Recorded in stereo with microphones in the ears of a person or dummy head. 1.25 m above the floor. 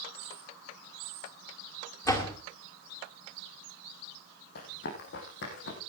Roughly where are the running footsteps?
Left.